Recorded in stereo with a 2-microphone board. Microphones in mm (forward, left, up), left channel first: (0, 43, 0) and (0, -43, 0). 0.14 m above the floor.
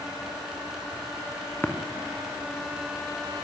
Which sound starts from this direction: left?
Tapping, at 1.6 s.